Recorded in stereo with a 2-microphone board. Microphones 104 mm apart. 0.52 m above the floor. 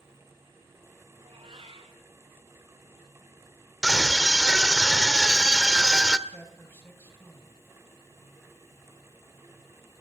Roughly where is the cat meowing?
Right.